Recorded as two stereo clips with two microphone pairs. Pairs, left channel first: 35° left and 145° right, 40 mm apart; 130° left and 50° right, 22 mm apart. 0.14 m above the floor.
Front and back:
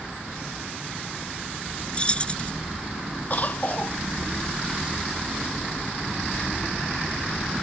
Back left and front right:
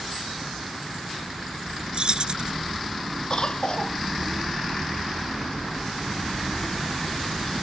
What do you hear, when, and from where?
1.9 s keys jangling: 20° right
3.3 s a cough: 80° left